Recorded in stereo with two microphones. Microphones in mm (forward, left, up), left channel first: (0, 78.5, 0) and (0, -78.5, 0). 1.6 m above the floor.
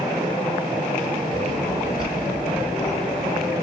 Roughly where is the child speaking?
Left.